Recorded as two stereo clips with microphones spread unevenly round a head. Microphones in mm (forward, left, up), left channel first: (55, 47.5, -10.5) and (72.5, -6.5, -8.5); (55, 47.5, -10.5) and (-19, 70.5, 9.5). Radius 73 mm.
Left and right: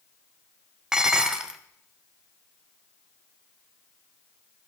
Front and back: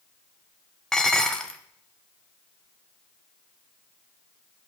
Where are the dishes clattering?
130° right, 0.7 m.